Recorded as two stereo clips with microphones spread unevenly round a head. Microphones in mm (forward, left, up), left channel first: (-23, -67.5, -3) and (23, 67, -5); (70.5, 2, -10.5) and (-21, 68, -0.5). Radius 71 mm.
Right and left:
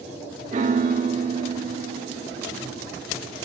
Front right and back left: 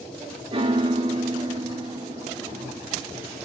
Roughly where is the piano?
Left.